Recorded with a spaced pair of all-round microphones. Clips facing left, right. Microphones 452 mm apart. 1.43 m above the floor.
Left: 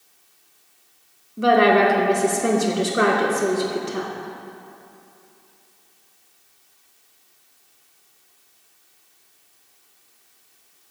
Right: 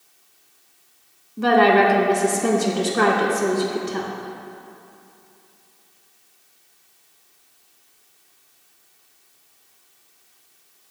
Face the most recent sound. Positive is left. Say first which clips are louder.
# even
turn(degrees=-5)  # may be behind; listen again after turning